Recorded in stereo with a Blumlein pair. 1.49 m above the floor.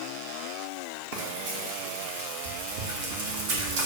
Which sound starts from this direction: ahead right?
Frying, at 1.1 s.